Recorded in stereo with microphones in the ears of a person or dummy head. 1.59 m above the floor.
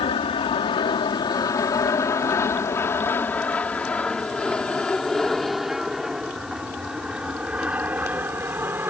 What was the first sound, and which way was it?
An aircraft, 30° left (ahead or behind).